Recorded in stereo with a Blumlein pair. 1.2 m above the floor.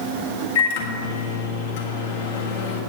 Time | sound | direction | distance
0.6 | a microwave | 55° left | 1.4 m